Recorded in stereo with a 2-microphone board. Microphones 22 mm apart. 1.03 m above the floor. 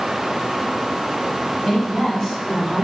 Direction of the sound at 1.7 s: 10° left (ahead or behind).